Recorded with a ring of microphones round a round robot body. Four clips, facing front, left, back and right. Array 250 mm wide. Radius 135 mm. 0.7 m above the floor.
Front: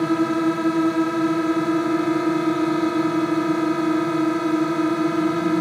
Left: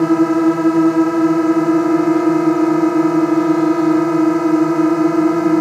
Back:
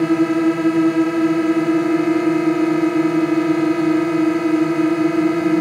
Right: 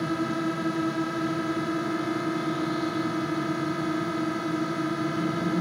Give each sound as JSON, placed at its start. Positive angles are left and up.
{"t": 0.0, "sound": "a drone", "azimuth_deg": 110}